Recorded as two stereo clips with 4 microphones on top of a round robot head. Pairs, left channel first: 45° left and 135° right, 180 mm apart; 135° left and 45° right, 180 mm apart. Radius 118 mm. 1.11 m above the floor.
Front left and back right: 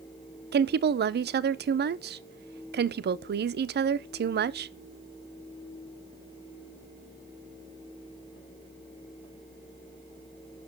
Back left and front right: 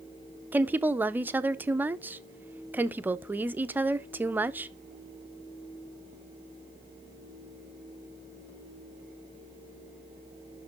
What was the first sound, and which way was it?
A woman speaking, 125° right.